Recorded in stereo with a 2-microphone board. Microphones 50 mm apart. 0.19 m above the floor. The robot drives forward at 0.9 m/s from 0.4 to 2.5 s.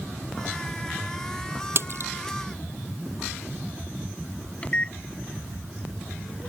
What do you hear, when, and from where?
1.8 s a splash: 50° right (ahead or behind); by 2.1 s 45° right (ahead or behind)
4.6 s a microwave: 25° left (ahead or behind)